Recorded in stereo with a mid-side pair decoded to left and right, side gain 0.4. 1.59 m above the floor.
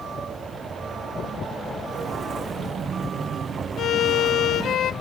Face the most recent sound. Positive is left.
turn(degrees=65)